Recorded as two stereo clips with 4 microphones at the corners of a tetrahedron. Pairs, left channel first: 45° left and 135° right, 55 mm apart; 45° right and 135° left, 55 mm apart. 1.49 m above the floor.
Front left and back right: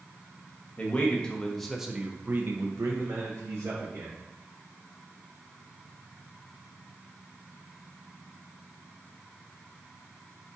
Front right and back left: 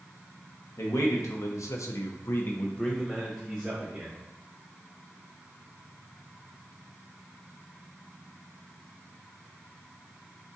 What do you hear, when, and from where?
0.8 s a man speaking: 20° right, 1.1 m; by 4.2 s 150° right, 1.3 m